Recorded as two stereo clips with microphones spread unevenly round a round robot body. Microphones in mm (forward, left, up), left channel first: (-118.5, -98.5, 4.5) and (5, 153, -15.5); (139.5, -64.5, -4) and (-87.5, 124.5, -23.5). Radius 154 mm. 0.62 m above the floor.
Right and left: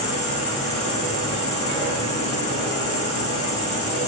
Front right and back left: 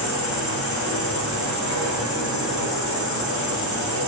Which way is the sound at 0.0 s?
165° right.